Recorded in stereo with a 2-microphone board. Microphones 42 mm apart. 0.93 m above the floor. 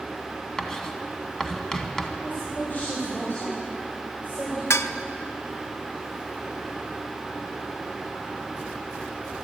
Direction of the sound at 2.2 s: 45° left (ahead or behind).